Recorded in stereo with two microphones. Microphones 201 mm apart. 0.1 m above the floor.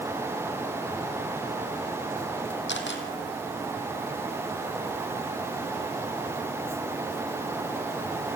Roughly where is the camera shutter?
Left.